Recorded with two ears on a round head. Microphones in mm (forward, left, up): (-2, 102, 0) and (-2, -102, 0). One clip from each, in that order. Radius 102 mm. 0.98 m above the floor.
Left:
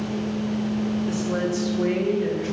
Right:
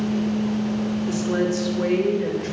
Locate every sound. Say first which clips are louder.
1.1 s a woman speaking: right 4 dB; 30° right (ahead or behind), 2 m; by 2.5 s 40° right (ahead or behind), 4 m